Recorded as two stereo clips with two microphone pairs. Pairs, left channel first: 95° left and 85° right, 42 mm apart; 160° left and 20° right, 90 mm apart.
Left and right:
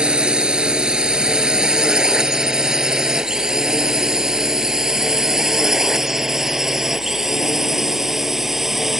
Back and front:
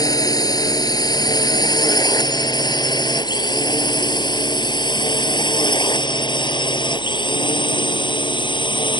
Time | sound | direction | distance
0.0 | a drone | 155° right | ?